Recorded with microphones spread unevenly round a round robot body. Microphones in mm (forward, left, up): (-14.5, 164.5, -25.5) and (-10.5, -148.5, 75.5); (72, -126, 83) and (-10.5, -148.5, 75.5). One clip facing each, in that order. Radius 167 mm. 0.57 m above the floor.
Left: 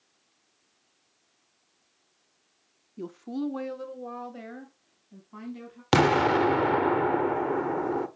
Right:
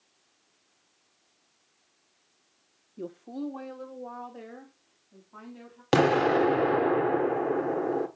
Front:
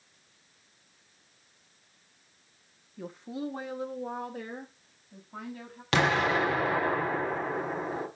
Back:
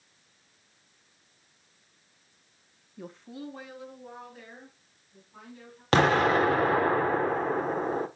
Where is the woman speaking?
130° left, 0.7 m; by 5.8 s 60° left, 4.5 m.